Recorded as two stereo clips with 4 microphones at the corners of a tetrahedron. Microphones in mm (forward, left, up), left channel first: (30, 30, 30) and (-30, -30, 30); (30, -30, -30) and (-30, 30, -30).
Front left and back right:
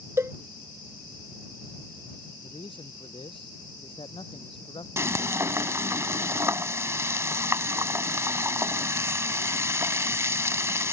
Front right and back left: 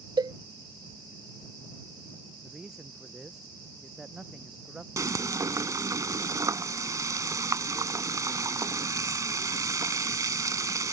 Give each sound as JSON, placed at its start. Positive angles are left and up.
{"t": 0.2, "sound": "a cowbell", "azimuth_deg": 170}
{"t": 2.4, "sound": "a man speaking", "azimuth_deg": 50}
{"t": 5.0, "sound": "frying", "azimuth_deg": 175}